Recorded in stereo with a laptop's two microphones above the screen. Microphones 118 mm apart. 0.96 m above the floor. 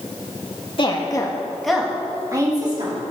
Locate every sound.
0.8 s a woman speaking: 45° left (ahead or behind), 1.8 m; by 3.0 s 45° right (ahead or behind), 2.5 m